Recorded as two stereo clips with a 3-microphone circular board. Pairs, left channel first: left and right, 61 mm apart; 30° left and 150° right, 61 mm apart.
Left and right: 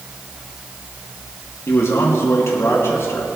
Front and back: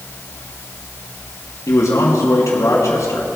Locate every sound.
1.7 s a man speaking: 50° left, 3.5 m